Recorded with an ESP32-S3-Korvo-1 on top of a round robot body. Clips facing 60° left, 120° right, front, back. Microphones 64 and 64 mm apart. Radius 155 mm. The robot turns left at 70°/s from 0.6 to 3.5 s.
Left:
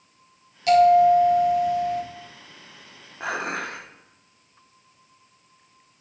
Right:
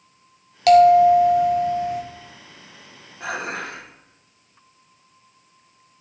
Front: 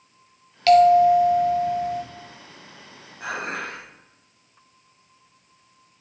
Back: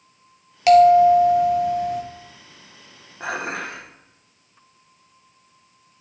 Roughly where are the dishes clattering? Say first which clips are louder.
Even, back 2 dB; behind left.